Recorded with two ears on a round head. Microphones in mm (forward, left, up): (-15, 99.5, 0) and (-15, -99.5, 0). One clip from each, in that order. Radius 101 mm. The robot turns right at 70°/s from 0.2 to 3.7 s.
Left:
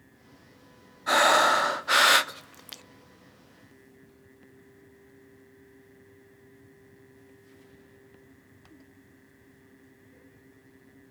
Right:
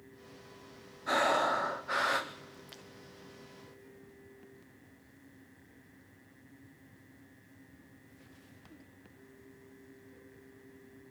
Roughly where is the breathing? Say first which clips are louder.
Left 8 dB; ahead left.